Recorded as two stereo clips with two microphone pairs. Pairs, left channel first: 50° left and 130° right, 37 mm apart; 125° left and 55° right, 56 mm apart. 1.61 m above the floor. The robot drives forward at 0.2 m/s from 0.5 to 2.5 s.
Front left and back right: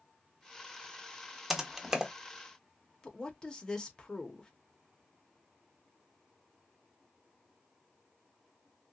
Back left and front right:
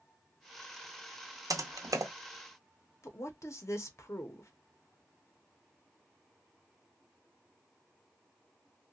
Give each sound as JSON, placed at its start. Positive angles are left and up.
{"t": 1.5, "sound": "typing on a keyboard", "azimuth_deg": -55, "distance_m": 0.6}
{"t": 3.0, "sound": "a woman speaking", "azimuth_deg": 120, "distance_m": 0.8}